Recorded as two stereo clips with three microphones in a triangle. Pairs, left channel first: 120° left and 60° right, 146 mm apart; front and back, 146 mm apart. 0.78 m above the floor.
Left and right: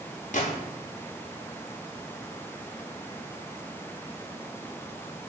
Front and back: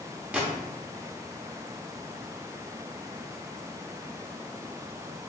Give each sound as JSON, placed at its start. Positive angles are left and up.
{"t": 0.3, "sound": "a gunshot", "azimuth_deg": 100, "distance_m": 0.8}